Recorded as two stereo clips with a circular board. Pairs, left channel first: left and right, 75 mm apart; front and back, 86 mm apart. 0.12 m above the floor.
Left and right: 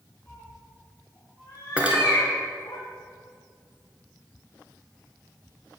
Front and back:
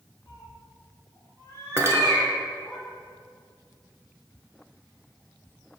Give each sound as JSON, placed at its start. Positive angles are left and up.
{"t": 0.3, "sound": "a cat meowing", "azimuth_deg": 25, "distance_m": 1.7}
{"t": 1.8, "sound": "cutlery clinking", "azimuth_deg": -150, "distance_m": 0.7}